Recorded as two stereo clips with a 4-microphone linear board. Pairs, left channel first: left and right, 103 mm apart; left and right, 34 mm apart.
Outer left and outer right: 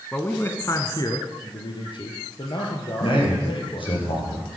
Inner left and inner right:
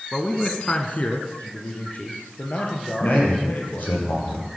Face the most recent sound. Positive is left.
turn(degrees=55)  # may be behind; listen again after turning